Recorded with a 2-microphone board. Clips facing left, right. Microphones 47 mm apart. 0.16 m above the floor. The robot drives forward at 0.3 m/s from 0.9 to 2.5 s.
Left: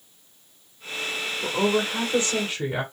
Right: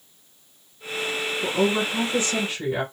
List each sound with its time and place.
1.4 s a woman speaking: 20° left (ahead or behind), 1.3 m